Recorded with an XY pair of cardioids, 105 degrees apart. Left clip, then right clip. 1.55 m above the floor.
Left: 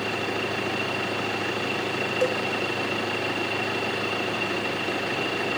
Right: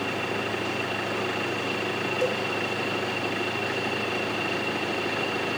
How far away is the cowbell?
About 0.8 m.